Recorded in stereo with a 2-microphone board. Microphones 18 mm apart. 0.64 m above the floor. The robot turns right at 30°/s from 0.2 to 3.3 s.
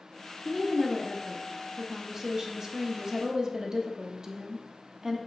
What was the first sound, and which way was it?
A woman speaking, straight behind.